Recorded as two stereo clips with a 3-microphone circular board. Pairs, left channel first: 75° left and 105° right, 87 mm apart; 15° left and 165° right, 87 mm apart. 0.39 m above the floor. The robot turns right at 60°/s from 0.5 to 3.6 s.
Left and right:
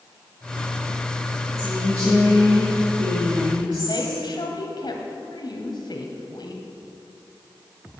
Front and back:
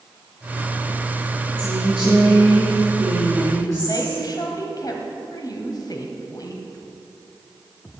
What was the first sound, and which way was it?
A woman speaking, 165° left.